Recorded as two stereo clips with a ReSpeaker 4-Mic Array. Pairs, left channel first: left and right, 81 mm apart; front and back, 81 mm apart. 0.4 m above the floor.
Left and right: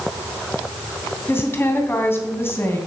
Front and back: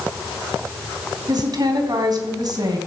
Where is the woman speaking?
150° left, 2.5 m.